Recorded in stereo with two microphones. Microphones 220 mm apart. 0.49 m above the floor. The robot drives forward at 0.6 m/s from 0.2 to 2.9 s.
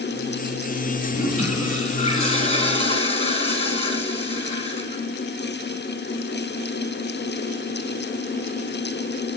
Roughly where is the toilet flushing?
Left.